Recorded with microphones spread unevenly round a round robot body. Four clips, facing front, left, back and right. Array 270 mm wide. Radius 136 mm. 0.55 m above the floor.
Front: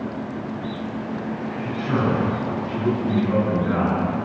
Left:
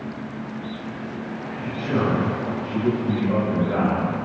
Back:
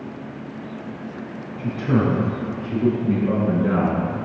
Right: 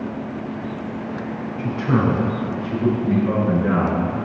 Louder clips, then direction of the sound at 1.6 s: Right 4 dB, back 3 dB; 150° right.